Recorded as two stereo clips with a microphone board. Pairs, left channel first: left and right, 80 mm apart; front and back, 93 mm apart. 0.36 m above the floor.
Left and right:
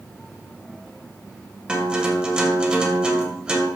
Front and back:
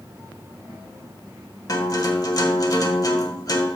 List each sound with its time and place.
1.7 s a guitar: 15° right, 1.8 m